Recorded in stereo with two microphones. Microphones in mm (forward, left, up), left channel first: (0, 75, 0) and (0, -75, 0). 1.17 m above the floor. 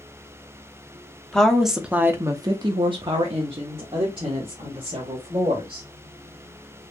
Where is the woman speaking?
5° left (ahead or behind), 0.7 m; by 5.9 s 35° right (ahead or behind), 2.0 m.